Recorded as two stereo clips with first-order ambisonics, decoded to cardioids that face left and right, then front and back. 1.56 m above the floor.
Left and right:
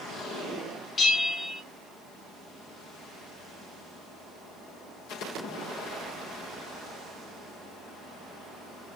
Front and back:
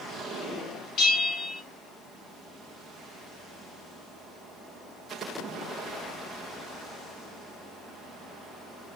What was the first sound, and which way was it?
A bell, 25° left.